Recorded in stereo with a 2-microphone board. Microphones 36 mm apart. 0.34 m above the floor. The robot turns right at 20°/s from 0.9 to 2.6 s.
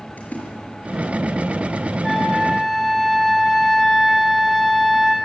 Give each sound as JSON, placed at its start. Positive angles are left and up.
{"t": 0.2, "sound": "a splash", "side_deg": 45, "distance_m": 6.0}
{"t": 2.0, "sound": "a flute", "side_deg": 5, "distance_m": 3.5}